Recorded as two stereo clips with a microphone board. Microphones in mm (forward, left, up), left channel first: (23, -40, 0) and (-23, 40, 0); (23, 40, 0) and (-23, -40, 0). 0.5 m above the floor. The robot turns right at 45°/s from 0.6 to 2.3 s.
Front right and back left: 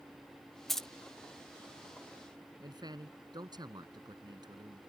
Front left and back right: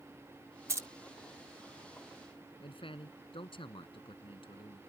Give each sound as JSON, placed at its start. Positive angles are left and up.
{"t": 0.7, "sound": "keys jangling", "azimuth_deg": -145}
{"t": 2.6, "sound": "a man speaking", "azimuth_deg": 80}